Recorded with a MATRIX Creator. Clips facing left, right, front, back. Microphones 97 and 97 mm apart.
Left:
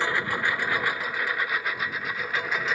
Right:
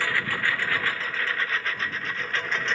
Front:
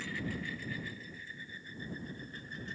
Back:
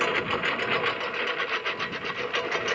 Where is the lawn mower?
160° left; by 2.8 s 170° left.